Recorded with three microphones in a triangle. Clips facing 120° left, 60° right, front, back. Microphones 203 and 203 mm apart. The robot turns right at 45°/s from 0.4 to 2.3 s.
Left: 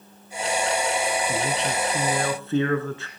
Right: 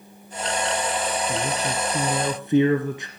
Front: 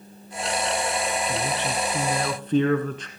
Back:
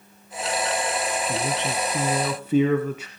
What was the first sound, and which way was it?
A man speaking, 155° right.